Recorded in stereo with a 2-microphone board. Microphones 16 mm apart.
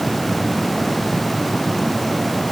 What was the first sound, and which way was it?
Only background noise.